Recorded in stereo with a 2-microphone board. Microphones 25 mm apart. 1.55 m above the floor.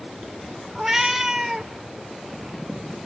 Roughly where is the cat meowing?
Centre.